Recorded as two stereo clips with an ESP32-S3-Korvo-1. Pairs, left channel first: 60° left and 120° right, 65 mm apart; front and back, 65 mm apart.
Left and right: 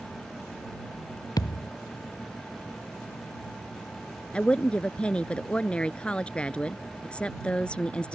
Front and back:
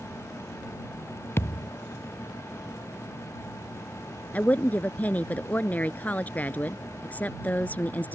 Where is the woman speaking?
15° left.